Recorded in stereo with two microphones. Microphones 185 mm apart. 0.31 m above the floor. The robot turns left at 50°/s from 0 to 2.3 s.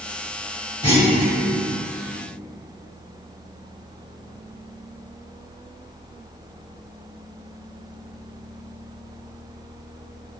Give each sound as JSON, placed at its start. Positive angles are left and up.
{"t": 0.8, "sound": "a clunk", "side_deg": 25, "distance_m": 1.5}